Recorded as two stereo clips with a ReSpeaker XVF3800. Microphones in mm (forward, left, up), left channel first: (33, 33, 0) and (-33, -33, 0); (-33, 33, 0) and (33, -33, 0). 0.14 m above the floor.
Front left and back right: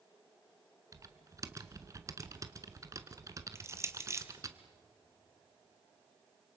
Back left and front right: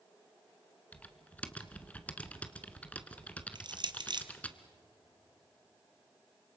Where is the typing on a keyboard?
160° right, 1.0 m.